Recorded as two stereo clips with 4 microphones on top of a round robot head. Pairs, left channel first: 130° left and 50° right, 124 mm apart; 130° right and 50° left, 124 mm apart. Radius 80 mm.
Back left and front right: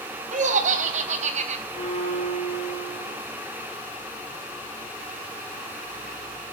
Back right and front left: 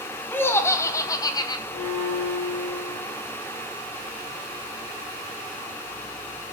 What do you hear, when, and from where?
0.3 s laughter: 60° right, 3 m; by 1.6 s 75° right, 3 m
1.7 s a violin: 165° right, 8 m